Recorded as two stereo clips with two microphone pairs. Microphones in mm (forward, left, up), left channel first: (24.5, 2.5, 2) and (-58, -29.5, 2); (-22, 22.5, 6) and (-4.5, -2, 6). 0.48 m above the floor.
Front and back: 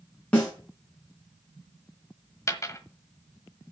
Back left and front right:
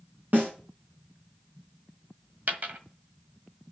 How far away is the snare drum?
About 4.5 m.